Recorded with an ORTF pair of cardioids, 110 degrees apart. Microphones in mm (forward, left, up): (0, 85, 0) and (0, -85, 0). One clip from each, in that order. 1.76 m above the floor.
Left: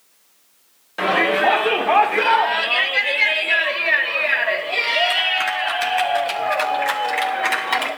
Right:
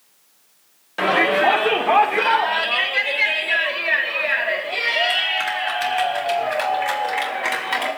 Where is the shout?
5° right, 2.0 m; by 7.9 s 15° left, 7.5 m.